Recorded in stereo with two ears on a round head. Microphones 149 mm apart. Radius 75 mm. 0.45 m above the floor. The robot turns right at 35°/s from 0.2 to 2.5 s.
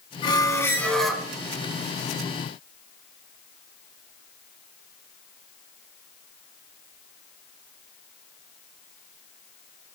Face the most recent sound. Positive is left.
turn(degrees=-130)